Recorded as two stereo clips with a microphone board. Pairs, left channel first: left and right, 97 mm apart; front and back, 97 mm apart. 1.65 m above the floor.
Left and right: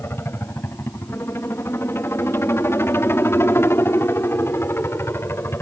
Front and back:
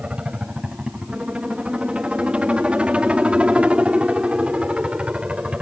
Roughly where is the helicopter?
Behind left.